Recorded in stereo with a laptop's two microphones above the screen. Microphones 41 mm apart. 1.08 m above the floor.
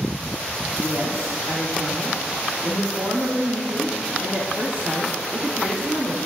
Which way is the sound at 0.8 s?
75° right (ahead or behind).